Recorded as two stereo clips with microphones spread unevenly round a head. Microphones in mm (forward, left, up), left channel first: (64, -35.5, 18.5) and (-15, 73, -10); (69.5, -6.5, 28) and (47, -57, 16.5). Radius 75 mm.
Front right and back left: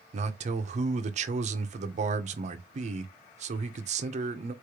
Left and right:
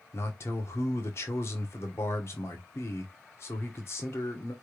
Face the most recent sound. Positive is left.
turn(degrees=90)